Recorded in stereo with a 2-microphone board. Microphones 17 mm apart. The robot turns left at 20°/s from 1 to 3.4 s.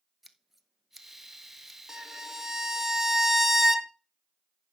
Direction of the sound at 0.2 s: 10° right (ahead or behind).